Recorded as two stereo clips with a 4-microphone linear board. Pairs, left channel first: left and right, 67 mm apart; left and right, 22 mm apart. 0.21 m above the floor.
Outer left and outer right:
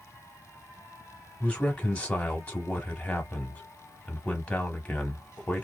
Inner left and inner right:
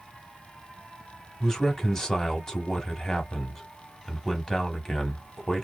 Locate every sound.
1.4 s a man speaking: 20° left (ahead or behind), 1.0 m